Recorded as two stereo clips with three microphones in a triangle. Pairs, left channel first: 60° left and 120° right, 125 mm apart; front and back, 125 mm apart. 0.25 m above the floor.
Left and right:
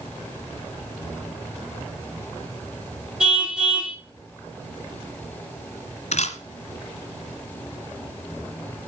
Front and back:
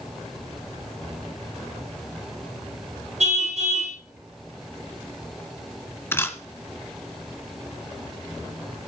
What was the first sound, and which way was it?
A car horn, 155° left.